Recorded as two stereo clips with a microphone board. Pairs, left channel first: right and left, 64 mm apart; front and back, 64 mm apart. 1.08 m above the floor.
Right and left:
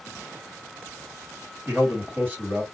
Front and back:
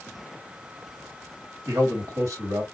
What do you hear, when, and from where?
1.7 s a man speaking: 160° left, 2 m